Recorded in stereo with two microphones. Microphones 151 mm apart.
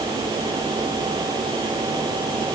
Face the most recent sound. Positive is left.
No sound to turn to.